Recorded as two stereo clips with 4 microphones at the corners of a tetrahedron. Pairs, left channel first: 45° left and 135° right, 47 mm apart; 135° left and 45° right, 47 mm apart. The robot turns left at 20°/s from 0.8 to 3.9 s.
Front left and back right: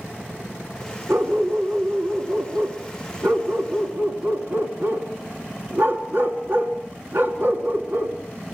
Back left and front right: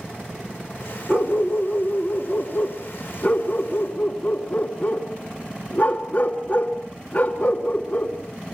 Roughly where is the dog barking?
Right.